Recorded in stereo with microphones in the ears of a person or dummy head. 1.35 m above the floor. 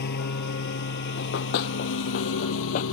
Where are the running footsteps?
55° left (ahead or behind); by 2.8 s 45° left (ahead or behind).